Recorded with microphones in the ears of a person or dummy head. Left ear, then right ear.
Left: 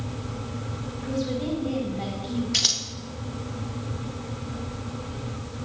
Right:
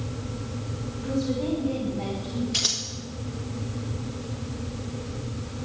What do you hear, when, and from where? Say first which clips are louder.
1.0 s a woman speaking: right 1 dB; 55° left (ahead or behind), 4.5 m
2.5 s scissors: left 3 dB; 10° left (ahead or behind), 1.6 m